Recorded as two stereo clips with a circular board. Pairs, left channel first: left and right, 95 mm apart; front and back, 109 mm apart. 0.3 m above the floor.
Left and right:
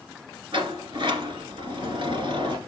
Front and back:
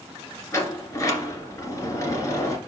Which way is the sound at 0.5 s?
60° right.